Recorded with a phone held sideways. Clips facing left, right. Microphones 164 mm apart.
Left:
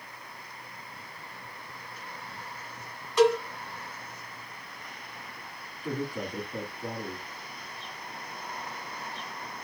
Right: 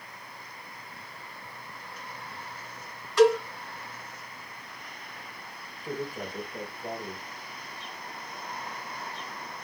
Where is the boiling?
I don't hear boiling.